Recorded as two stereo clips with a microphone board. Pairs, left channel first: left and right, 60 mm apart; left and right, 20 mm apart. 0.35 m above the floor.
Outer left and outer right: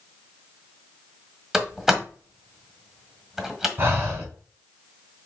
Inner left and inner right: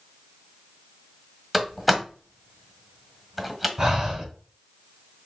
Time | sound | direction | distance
1.5 | a door slam | 10° right (ahead or behind) | 1.4 m
3.8 | breathing | 40° right (ahead or behind) | 4 m